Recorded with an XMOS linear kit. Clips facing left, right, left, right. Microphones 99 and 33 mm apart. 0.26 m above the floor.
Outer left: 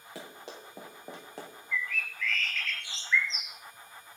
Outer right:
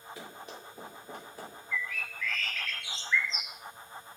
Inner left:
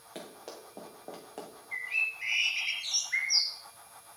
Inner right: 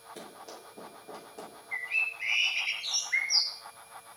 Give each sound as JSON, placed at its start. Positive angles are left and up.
{"t": 0.1, "sound": "running footsteps", "side_deg": 80, "distance_m": 5.5}
{"t": 1.7, "sound": "a bird", "side_deg": -5, "distance_m": 3.5}